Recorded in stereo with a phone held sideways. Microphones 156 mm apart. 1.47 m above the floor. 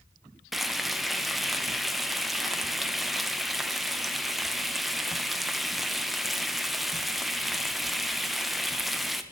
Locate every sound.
0.5 s frying: centre (ahead or behind), 0.6 m